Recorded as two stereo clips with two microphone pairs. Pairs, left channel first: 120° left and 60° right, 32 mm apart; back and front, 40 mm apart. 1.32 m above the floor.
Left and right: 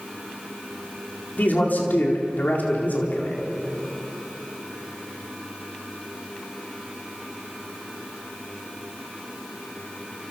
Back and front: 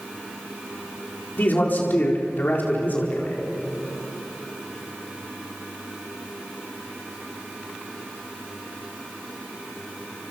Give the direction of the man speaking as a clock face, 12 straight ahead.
7 o'clock.